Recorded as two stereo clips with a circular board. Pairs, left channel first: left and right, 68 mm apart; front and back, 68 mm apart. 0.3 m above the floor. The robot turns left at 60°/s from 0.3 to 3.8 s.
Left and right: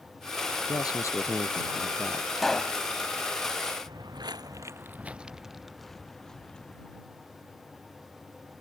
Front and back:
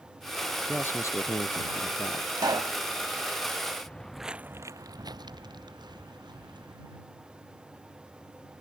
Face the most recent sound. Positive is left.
turn(degrees=170)